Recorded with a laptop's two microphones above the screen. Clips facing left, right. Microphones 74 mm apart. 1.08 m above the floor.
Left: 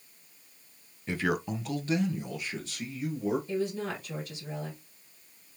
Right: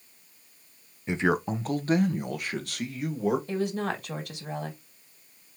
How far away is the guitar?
I don't hear a guitar.